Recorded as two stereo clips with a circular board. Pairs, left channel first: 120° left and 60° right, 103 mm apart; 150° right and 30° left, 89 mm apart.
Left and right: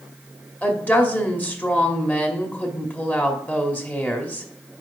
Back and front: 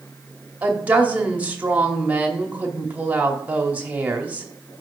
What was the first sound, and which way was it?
A woman speaking, 75° left.